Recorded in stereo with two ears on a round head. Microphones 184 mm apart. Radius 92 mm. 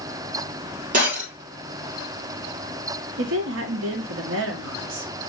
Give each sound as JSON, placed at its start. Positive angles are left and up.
{"t": 0.9, "sound": "breaking glass", "side_deg": -40, "distance_m": 2.0}
{"t": 3.2, "sound": "a woman speaking", "side_deg": -65, "distance_m": 0.8}